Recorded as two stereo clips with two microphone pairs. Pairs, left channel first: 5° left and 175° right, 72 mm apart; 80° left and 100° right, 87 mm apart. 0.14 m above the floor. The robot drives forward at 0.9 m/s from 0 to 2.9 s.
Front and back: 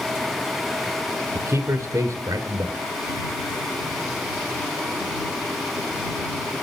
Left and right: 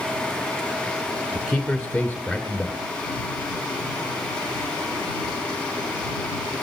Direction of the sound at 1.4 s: 170° left.